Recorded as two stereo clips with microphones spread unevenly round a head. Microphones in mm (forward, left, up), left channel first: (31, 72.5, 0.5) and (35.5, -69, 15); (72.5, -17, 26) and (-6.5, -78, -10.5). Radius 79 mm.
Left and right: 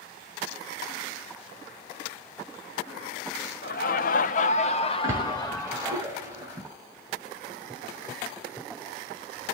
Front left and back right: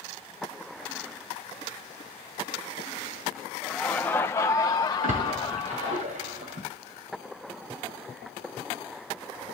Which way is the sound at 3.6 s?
110° left.